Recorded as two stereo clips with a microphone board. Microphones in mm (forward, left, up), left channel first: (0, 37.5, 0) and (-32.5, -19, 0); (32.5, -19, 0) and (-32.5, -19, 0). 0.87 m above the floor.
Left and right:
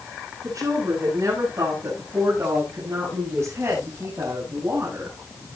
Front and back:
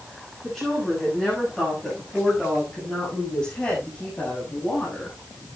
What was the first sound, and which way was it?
A woman speaking, 90° right.